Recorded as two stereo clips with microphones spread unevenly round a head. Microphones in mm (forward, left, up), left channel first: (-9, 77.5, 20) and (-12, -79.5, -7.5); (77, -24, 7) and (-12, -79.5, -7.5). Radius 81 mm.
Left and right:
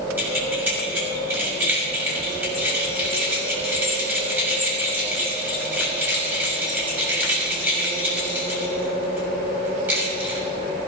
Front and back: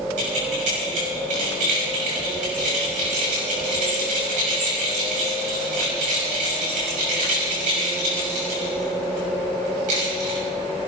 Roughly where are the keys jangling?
Behind.